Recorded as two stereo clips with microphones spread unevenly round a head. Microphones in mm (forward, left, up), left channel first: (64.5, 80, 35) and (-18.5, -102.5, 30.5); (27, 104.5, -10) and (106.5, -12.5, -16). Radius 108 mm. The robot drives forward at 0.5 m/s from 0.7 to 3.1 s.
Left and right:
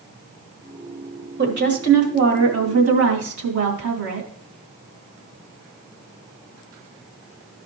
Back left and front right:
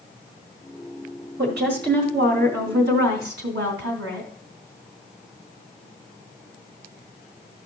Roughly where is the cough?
No cough in this recording.